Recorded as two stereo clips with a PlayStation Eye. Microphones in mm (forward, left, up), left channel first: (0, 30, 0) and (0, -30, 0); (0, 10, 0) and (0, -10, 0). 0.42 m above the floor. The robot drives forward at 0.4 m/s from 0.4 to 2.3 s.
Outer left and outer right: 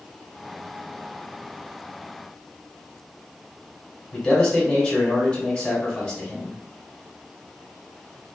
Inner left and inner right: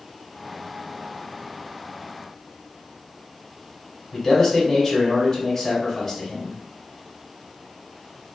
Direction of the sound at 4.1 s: 25° left (ahead or behind).